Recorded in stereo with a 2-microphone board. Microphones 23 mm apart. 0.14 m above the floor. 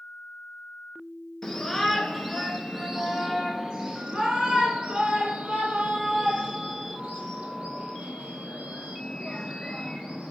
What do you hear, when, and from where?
1.4 s a shout: 10° left (ahead or behind), 1.8 m; by 10.3 s 60° right (ahead or behind), 5.5 m